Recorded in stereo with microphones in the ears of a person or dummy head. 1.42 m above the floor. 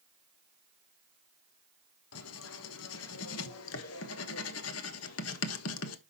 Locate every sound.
2.1 s writing: 75° left (ahead or behind), 1.3 m